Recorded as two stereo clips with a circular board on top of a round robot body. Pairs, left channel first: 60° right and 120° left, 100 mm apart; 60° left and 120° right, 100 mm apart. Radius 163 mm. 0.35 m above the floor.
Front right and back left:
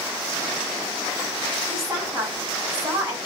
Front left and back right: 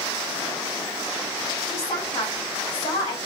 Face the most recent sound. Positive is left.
turn(degrees=65)